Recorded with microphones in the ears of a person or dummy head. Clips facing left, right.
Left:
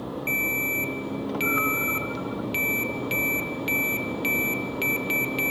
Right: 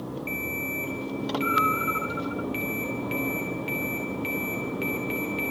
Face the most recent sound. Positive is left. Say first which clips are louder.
# left 2 dB
turn(degrees=60)  # may be behind; listen again after turning